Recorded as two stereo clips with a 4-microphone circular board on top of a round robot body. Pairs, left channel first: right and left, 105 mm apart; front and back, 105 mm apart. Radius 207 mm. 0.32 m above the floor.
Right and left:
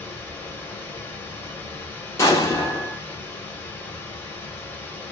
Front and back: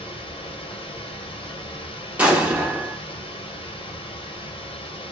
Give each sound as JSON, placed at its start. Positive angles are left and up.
{"t": 0.0, "sound": "running water", "azimuth_deg": -20, "distance_m": 1.2}
{"t": 2.2, "sound": "an explosion", "azimuth_deg": -115, "distance_m": 1.3}